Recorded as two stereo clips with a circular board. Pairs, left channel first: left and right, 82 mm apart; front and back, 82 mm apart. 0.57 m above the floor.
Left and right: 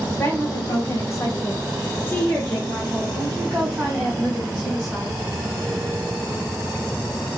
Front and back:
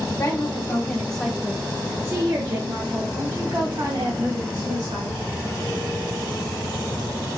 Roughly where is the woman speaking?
Ahead left.